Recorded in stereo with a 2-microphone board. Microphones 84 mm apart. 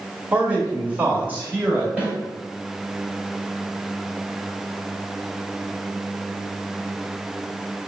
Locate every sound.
0.3 s a man speaking: 20° right (ahead or behind), 1.4 m; by 1.9 s 25° right (ahead or behind), 2.0 m
2.0 s a snare drum: 20° right (ahead or behind), 1.7 m